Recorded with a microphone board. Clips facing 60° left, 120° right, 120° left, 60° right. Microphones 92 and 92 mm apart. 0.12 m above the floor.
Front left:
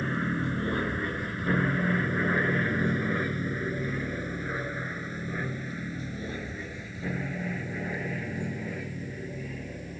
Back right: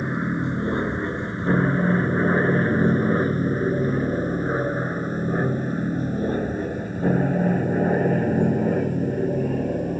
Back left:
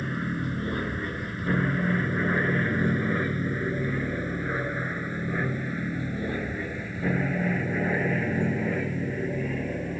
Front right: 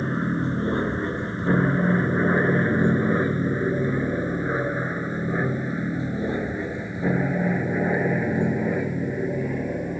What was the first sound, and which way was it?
An aircraft, 70° right.